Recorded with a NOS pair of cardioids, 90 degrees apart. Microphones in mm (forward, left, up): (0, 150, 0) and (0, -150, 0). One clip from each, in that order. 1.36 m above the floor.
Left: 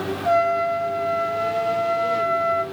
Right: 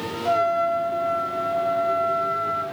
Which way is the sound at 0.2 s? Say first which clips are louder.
Left 2 dB; 10° left.